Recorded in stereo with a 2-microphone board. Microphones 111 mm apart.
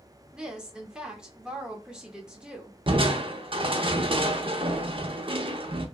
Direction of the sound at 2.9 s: 50° right (ahead or behind).